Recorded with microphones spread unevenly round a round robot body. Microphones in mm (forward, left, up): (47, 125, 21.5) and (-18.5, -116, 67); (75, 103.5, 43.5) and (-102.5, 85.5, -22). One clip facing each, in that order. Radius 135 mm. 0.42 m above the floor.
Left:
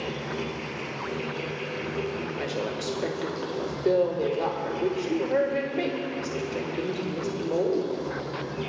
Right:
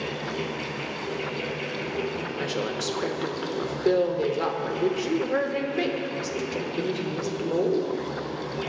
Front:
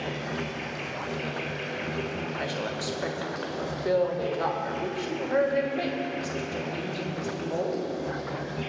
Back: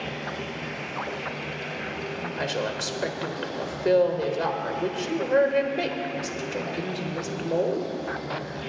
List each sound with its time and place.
0.0 s an insect: 15° left, 3.5 m
2.4 s a woman speaking: straight behind, 1.2 m